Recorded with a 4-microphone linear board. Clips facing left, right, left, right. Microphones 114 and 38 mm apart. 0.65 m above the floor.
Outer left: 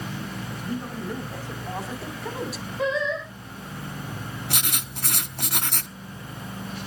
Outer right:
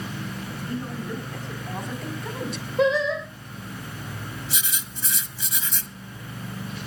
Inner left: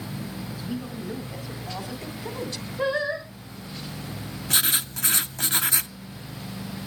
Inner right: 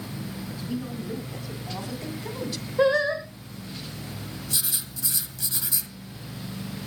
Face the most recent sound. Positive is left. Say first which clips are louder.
# outer left 3 dB, inner left 10 dB
turn(degrees=60)  # may be behind; listen again after turning